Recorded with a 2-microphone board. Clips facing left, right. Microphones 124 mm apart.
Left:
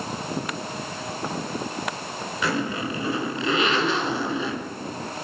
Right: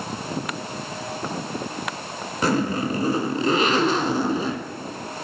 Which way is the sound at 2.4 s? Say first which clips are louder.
Right 5 dB; 40° right (ahead or behind).